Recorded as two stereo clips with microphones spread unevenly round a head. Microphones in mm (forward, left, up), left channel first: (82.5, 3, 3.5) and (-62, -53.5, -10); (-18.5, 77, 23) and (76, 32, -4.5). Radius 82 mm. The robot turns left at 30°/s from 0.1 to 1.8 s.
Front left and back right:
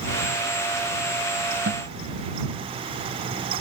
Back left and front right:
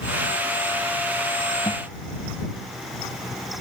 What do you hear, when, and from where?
1.7 s a guitar: 150° right; by 2.0 s 155° right